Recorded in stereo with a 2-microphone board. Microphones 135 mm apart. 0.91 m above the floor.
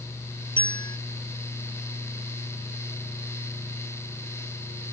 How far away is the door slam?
No door slam in this recording.